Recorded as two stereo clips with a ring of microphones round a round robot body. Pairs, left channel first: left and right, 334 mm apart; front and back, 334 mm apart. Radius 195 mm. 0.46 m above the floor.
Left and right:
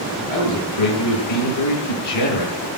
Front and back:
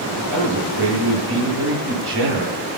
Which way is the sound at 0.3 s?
120° left.